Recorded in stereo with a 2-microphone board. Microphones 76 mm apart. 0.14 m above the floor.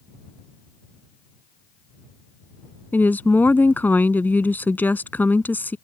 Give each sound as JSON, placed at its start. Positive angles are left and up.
{"t": 2.9, "sound": "a woman speaking", "side_deg": 25}